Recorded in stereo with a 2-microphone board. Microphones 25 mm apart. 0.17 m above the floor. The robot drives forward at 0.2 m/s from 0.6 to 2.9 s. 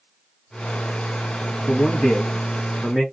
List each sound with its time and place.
1.7 s a man speaking: 20° left (ahead or behind), 1.4 m